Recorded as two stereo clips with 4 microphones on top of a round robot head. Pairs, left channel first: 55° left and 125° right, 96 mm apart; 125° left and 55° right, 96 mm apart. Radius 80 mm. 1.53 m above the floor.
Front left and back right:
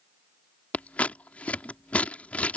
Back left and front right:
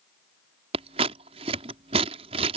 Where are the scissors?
25° right.